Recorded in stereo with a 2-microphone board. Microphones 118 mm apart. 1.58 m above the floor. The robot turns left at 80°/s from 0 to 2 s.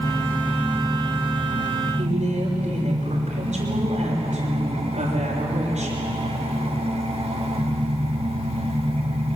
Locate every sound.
0.0 s an engine running: 50° left, 3.5 m; by 9.4 s 110° right, 3.5 m
2.0 s a woman speaking: 90° right, 6 m